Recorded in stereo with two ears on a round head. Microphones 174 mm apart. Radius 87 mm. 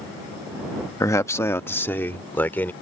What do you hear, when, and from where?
1.0 s a man speaking: 15° left (ahead or behind); by 2.7 s 10° left (ahead or behind)